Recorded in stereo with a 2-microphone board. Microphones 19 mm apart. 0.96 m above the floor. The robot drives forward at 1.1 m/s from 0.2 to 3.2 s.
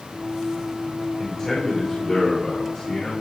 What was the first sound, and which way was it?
A man speaking, 25° left (ahead or behind).